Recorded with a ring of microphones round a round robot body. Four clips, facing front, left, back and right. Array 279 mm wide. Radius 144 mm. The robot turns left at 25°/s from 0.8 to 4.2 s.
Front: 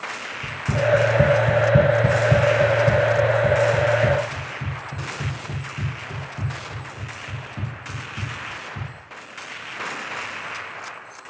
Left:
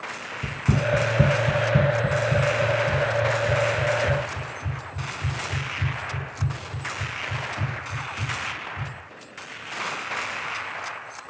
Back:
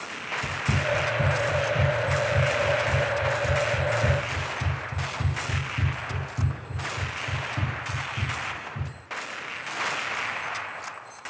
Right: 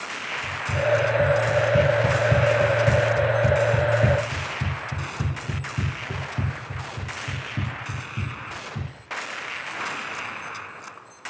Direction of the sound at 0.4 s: 90° left.